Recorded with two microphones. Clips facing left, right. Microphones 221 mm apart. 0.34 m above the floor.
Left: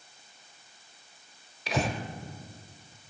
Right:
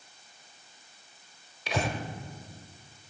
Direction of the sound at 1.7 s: Centre (ahead or behind).